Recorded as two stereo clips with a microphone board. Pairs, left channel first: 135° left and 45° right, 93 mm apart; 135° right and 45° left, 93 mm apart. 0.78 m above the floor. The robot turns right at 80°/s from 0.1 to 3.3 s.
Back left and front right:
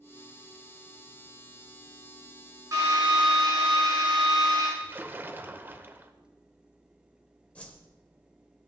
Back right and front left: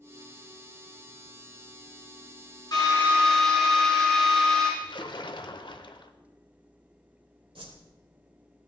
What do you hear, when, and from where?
2.7 s a drill: 95° right, 5.5 m; by 4.7 s 50° right, 5.5 m
4.8 s a splash: 110° right, 0.8 m
7.5 s a whoosh: 60° left, 1.8 m